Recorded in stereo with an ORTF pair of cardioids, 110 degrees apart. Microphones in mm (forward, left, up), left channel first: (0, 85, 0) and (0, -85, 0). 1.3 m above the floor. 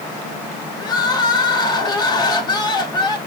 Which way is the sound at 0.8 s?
25° left.